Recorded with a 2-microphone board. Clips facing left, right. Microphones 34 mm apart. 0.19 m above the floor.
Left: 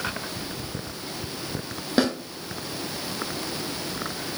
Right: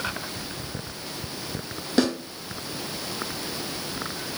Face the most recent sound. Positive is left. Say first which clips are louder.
# even
turn(degrees=15)  # may be behind; listen again after turning